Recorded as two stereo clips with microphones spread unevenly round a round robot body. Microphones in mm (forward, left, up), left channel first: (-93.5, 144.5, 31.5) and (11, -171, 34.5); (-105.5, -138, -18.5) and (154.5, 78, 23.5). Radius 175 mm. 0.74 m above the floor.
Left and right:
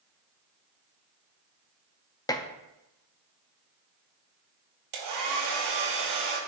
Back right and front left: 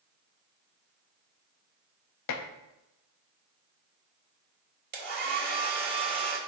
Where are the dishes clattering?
175° right, 0.7 m.